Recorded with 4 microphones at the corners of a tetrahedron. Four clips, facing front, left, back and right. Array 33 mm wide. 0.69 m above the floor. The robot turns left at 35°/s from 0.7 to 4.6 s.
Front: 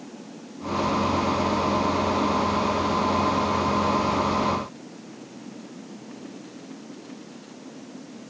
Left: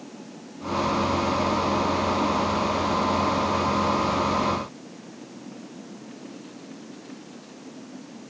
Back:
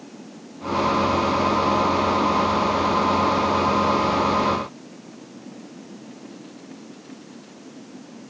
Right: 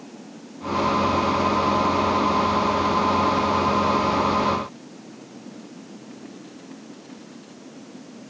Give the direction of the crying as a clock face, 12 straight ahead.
I don't hear crying.